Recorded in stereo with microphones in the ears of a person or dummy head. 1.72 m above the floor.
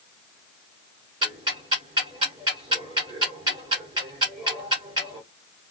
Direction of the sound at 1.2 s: 30° right (ahead or behind).